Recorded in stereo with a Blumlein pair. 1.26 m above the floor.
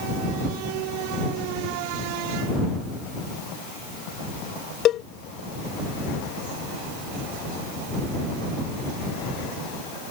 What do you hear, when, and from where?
4.8 s a cowbell: 30° left